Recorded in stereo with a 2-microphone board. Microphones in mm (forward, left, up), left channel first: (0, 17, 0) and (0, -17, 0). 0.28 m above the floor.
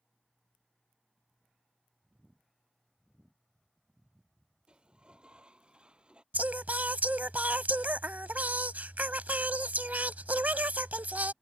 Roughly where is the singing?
Right.